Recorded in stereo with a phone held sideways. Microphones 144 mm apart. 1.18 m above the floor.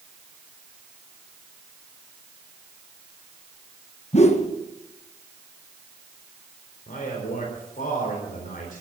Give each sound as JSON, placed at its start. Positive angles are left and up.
{"t": 4.1, "sound": "a whoosh", "side_deg": 50, "distance_m": 1.3}
{"t": 6.9, "sound": "a man speaking", "side_deg": 85, "distance_m": 4.0}